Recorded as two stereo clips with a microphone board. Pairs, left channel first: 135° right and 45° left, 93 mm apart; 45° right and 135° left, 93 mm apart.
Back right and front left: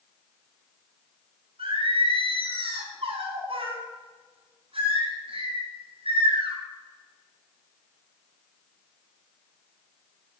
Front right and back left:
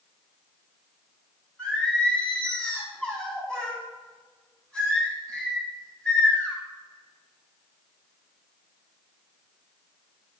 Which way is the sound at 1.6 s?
35° left.